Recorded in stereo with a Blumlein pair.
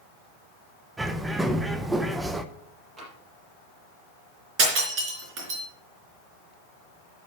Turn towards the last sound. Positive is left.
turn(degrees=-35)